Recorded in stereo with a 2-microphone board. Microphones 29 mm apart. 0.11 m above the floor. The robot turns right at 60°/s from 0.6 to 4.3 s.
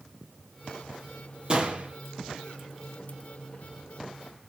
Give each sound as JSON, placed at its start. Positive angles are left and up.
{"t": 1.5, "sound": "a gunshot", "side_deg": -35, "distance_m": 4.0}